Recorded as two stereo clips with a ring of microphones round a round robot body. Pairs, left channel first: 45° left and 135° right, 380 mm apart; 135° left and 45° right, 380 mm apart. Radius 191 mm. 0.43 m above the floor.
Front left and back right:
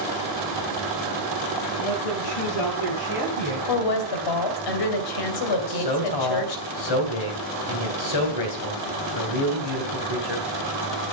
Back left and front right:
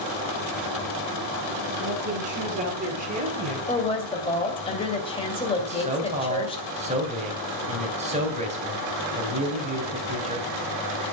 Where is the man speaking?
25° left, 3 m.